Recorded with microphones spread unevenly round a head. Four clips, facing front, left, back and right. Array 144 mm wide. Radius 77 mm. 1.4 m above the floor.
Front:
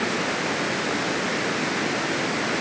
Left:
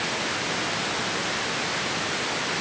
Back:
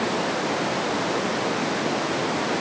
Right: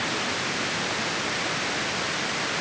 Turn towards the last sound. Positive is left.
No sound to turn to.